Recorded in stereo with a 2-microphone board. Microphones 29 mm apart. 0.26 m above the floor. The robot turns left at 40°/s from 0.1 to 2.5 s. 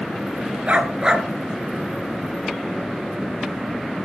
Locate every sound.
0.7 s a dog barking: 40° right (ahead or behind), 1.8 m; by 1.3 s 20° right (ahead or behind), 1.8 m